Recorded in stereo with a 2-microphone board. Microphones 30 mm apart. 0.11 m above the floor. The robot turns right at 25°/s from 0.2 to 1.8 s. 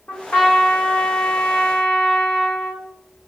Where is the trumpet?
90° left, 2.5 m; by 2.9 s 130° left, 2.5 m.